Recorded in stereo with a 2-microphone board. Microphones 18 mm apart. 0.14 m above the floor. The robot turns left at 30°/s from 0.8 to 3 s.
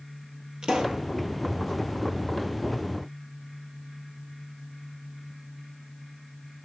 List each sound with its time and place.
0.6 s a pop: 70° right (ahead or behind), 1.6 m; by 1.1 s 65° right (ahead or behind), 1.6 m